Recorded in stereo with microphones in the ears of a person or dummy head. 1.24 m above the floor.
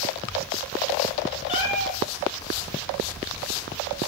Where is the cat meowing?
35° left (ahead or behind), 5 m.